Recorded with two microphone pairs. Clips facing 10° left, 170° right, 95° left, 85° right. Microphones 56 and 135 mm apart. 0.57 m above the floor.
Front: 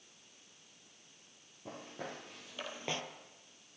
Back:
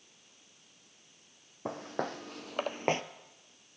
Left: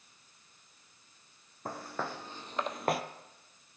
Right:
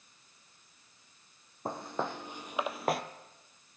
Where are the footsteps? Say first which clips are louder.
Back 9 dB, right 3 dB; 150° right, 1.5 m; by 3.0 s straight behind, 0.6 m.